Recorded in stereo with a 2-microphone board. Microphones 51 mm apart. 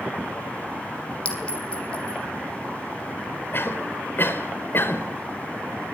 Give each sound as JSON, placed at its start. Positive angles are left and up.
{"t": 1.2, "sound": "a clink", "side_deg": 20, "distance_m": 3.5}
{"t": 3.5, "sound": "a cough", "side_deg": 40, "distance_m": 3.5}